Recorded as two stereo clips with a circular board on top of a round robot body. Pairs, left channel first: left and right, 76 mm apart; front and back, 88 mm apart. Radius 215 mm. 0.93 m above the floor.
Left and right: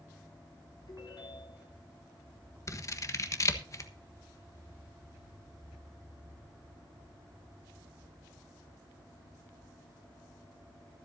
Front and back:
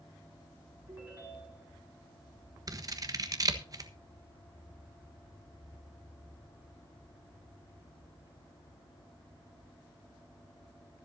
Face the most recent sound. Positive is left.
turn(degrees=135)